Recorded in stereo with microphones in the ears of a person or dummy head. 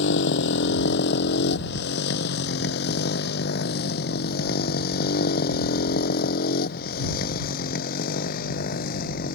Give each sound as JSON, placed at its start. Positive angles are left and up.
{"t": 0.0, "sound": "a motorcycle", "side_deg": 75}